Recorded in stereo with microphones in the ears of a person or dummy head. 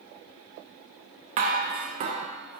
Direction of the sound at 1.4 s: 40° right (ahead or behind).